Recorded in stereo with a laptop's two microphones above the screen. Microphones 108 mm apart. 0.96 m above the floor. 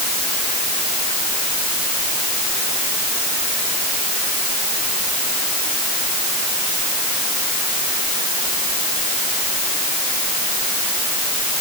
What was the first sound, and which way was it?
Only background noise.